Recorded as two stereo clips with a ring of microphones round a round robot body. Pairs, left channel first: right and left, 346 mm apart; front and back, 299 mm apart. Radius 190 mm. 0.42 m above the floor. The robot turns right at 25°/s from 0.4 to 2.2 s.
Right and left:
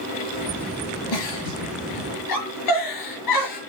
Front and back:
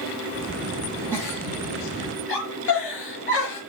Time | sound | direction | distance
1.1 | a giggle | 85° right | 8 m